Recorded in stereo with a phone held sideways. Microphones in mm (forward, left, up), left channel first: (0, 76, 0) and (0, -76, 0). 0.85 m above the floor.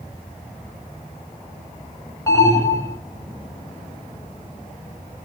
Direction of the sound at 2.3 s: 20° left (ahead or behind).